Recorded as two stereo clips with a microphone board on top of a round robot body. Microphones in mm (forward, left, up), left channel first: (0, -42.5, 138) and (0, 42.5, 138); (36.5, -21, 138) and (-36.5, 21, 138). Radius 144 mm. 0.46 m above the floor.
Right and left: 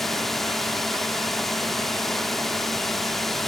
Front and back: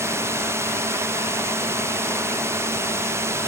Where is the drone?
175° right.